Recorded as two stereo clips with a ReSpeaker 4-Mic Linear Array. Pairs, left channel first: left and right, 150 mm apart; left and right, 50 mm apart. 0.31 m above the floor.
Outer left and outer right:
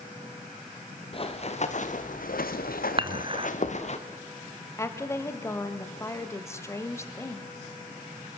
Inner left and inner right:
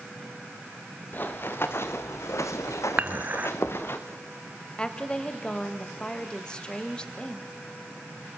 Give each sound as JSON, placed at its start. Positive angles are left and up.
{"t": 1.1, "sound": "running footsteps", "side_deg": 40, "distance_m": 2.0}
{"t": 3.0, "sound": "dishes clattering", "side_deg": -35, "distance_m": 1.2}
{"t": 4.8, "sound": "a woman speaking", "side_deg": 20, "distance_m": 1.3}